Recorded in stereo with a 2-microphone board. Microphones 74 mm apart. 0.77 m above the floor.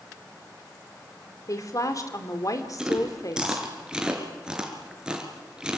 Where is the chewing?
10° right (ahead or behind), 3.5 m.